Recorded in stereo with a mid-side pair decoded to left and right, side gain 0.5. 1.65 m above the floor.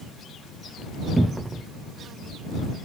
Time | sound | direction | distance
1.2 | a cupboard door | 10° right | ?